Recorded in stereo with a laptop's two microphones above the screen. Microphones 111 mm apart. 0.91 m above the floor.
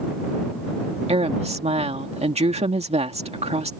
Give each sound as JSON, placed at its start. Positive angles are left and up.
{"t": 1.1, "sound": "a woman speaking", "side_deg": -65}